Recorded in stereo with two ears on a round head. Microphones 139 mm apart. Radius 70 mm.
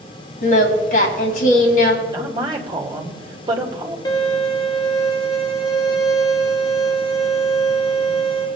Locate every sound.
0.4 s singing: 55° left (ahead or behind), 2.5 m
2.1 s a woman speaking: 30° right (ahead or behind), 2.5 m
4.0 s a violin: 25° left (ahead or behind), 1.5 m